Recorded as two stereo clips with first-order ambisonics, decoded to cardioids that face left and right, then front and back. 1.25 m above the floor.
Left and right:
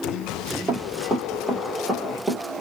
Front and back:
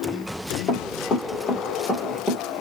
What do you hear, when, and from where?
0.7 s running footsteps: 20° right, 1.5 m; by 2.6 s 110° right, 1.2 m